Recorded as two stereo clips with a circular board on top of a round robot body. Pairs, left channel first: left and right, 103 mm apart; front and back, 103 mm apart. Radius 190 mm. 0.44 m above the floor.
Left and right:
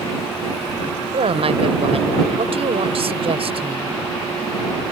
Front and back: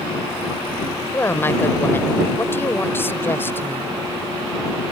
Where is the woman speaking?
70° right.